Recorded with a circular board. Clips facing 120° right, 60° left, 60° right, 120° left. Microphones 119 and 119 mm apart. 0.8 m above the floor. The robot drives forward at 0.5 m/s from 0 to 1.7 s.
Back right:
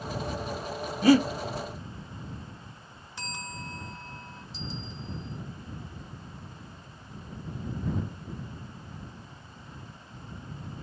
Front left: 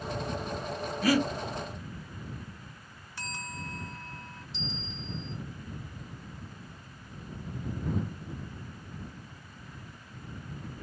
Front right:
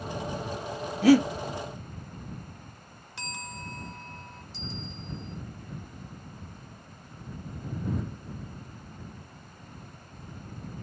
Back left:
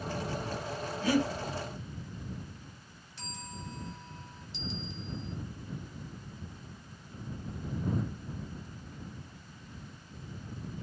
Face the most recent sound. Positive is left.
turn(degrees=90)